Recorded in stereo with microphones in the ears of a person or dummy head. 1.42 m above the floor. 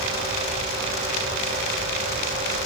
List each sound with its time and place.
Only background noise.